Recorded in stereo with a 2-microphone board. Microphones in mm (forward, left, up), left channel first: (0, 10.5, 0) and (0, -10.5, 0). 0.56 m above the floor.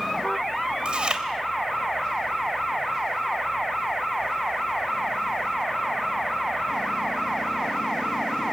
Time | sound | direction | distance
0.8 | chewing | 50° right (ahead or behind) | 3 m